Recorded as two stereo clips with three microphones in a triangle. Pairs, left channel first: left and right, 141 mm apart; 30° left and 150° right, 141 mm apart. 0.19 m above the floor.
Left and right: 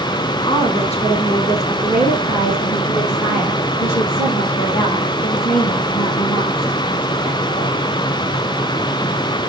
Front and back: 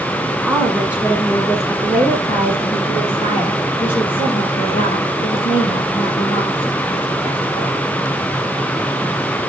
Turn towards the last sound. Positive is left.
turn(degrees=40)